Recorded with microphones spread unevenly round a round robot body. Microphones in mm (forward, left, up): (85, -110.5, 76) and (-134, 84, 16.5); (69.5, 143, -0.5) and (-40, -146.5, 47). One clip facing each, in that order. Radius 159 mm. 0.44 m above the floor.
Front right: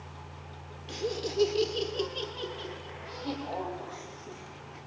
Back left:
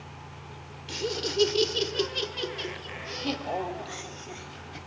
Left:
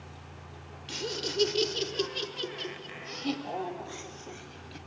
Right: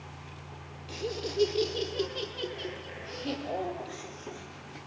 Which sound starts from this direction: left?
Laughter, at 0.9 s.